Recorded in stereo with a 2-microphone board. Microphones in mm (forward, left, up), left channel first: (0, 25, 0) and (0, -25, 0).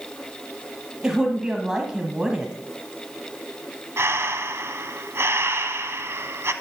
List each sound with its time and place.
1.0 s a woman speaking: 15° right (ahead or behind), 1.3 m
4.0 s breathing: 60° right (ahead or behind), 1.0 m